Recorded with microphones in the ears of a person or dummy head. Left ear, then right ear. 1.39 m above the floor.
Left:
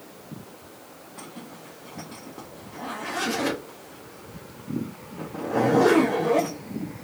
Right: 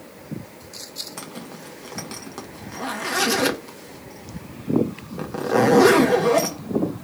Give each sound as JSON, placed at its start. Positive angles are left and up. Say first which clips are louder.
{"t": 1.2, "sound": "a zipper", "louder": "right 5 dB", "side_deg": -65, "distance_m": 0.9}